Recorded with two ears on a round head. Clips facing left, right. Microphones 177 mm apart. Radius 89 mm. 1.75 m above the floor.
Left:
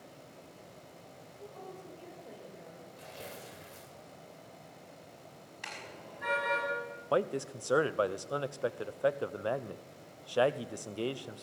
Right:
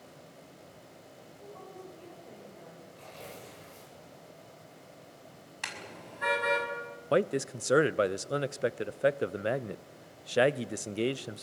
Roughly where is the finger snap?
No finger snap in this recording.